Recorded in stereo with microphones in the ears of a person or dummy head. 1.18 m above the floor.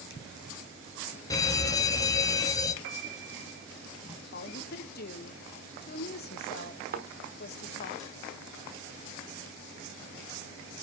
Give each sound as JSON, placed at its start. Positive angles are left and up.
{"t": 1.3, "sound": "a fire alarm", "side_deg": 20, "distance_m": 1.1}
{"t": 2.8, "sound": "a piano", "side_deg": -70, "distance_m": 1.5}
{"t": 4.3, "sound": "a woman speaking", "side_deg": 50, "distance_m": 1.4}
{"t": 6.9, "sound": "a thud", "side_deg": -45, "distance_m": 1.4}